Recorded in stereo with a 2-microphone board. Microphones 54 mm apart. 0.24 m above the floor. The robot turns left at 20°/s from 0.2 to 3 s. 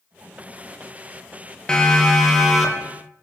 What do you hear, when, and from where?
1.7 s a siren: 15° left (ahead or behind), 5.5 m; by 2.9 s 5° right (ahead or behind), 7 m